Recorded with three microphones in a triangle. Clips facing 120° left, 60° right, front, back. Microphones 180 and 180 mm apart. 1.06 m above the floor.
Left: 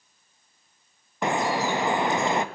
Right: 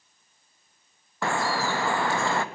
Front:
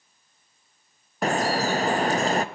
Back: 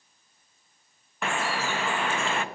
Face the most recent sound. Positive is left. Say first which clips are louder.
# left 2 dB, front 6 dB
turn(degrees=50)